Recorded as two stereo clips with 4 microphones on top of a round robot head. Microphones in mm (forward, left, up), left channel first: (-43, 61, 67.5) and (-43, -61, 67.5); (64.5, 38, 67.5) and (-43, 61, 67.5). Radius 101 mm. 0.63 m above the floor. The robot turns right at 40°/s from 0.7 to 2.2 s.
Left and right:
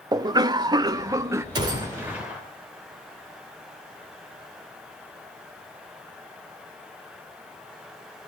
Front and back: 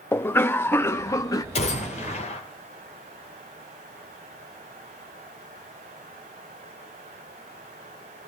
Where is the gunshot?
35° right, 2.5 m; by 2.4 s 10° right, 2.5 m.